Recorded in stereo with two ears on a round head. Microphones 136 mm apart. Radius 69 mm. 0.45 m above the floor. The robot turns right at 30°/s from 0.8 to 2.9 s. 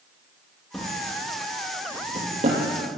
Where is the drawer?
Centre (ahead or behind), 5 m; by 2.6 s 55° right (ahead or behind), 5 m.